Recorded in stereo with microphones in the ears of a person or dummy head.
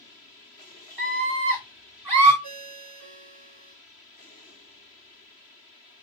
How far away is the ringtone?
About 1.8 m.